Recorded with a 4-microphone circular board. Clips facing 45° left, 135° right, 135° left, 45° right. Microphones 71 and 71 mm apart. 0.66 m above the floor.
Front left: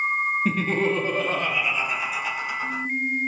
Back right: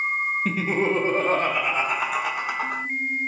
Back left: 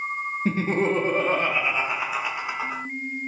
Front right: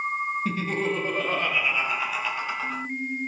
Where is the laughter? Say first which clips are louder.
Back right 1 dB, back left 8 dB; 130° left, 0.6 m; by 2.8 s 155° right, 1.5 m.